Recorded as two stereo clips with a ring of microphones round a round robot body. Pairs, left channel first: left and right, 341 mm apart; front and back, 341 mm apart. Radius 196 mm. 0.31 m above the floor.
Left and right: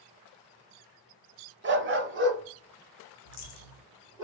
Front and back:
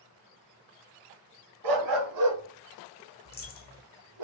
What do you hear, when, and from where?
1.6 s a dog barking: 150° right, 0.8 m; by 4.2 s 140° right, 3 m
3.2 s a dropped coin: 60° left, 1.5 m